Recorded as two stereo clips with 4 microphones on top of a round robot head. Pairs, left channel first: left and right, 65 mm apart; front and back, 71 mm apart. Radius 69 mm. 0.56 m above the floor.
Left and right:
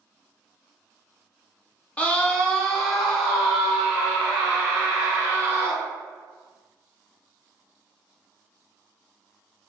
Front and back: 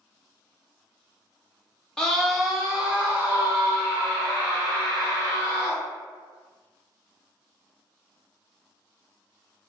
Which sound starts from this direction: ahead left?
A scream, at 2.0 s.